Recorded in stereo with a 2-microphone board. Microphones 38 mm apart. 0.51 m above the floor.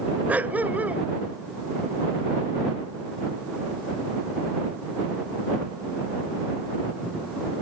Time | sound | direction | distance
0.3 | a dog barking | 40° right (ahead or behind) | ?